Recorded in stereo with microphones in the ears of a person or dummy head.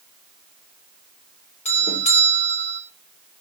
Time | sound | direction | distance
1.6 | a doorbell | 35° left (ahead or behind) | 3 m